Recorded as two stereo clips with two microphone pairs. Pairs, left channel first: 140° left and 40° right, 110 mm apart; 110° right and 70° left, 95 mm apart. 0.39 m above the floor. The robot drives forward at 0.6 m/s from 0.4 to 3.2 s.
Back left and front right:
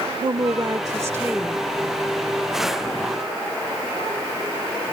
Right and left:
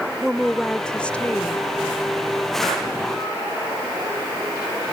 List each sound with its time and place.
0.2 s a woman speaking: 20° right; by 1.6 s 115° right